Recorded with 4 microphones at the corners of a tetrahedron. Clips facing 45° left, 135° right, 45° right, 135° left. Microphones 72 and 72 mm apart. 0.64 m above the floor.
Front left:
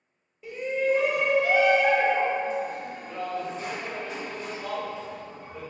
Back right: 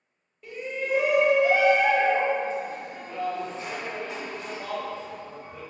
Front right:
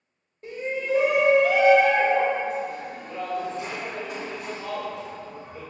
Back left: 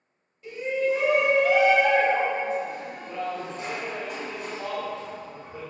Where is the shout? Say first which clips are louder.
Front left 5 dB, back left 3 dB; 35° right, 0.8 m; by 5.6 s 170° left, 2.5 m.